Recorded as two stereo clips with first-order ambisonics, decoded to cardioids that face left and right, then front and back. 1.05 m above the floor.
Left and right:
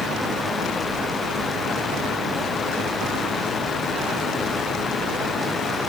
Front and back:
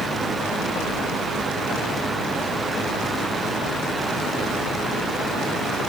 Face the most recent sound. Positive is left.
No sound to turn to.